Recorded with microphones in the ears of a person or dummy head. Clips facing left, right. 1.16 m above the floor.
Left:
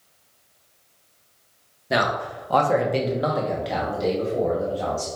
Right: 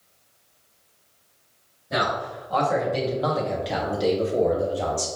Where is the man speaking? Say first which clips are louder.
Left 3 dB; 75° left (ahead or behind), 1.2 m; by 5.1 s 35° right (ahead or behind), 1.7 m.